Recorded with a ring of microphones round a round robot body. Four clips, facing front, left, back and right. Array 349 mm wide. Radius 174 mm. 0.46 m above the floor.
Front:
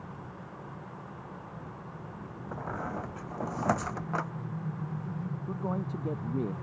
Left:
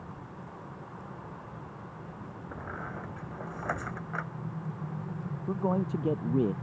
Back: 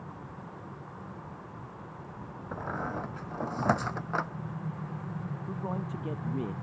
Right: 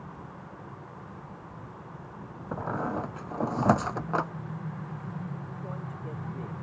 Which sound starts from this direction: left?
A man speaking, at 5.5 s.